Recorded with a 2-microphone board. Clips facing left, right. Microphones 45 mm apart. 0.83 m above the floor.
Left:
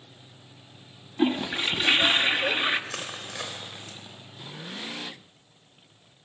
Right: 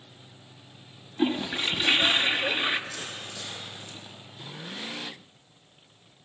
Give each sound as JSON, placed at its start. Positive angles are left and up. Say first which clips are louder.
{"t": 1.2, "sound": "a toilet flushing", "louder": "left 2 dB", "side_deg": 10, "distance_m": 0.8}
{"t": 2.9, "sound": "crushing", "louder": "left 2 dB", "side_deg": 80, "distance_m": 4.0}